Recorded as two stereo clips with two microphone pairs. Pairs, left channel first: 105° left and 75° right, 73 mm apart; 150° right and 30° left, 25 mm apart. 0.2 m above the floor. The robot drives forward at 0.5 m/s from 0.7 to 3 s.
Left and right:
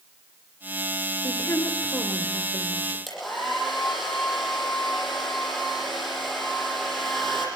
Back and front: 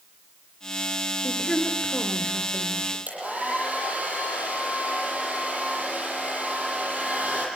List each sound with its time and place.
1.2 s a woman speaking: 145° left, 3 m; by 3.0 s 150° left, 3.5 m
3.1 s a hair dryer: 15° left, 8.5 m